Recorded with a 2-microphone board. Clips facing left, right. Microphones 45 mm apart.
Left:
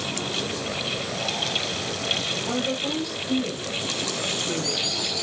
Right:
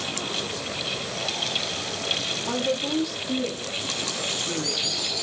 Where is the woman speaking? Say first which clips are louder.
Right 2 dB; 10° right (ahead or behind), 6.5 m.